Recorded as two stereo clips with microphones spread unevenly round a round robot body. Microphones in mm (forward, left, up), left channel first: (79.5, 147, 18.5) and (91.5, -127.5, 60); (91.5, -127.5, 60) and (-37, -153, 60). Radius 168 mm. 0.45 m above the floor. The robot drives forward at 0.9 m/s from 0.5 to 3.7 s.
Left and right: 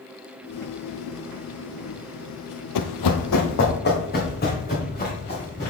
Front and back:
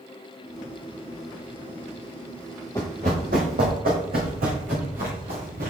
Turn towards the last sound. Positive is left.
turn(degrees=165)